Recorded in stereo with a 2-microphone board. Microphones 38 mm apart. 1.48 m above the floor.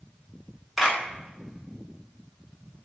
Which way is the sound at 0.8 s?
5° right (ahead or behind).